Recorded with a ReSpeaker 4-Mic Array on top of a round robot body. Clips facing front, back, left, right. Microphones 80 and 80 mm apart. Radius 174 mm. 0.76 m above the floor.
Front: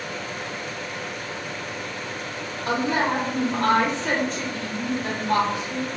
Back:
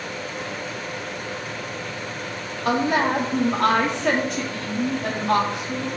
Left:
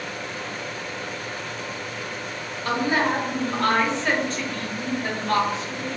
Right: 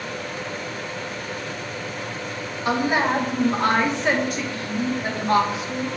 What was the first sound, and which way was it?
A woman speaking, 165° right.